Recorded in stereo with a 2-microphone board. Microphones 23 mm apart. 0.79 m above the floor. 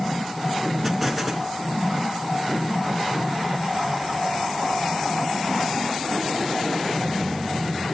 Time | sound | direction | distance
0.8 | an explosion | 10° right (ahead or behind) | 3 m